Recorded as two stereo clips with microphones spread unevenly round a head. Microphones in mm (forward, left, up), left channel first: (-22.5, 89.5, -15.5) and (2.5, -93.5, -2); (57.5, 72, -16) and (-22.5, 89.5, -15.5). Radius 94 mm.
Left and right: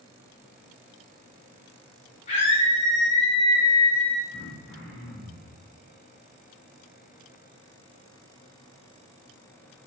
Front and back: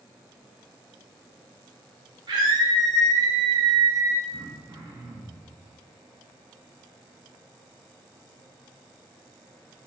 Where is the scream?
150° left, 3 m; by 4.2 s 165° left, 2.5 m.